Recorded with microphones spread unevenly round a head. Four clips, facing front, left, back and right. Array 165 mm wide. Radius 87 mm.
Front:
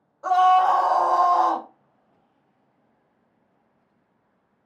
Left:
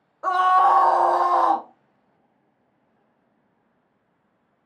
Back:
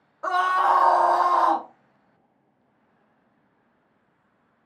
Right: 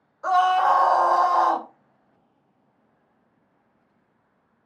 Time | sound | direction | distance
0.2 | a scream | 130° left | 0.7 m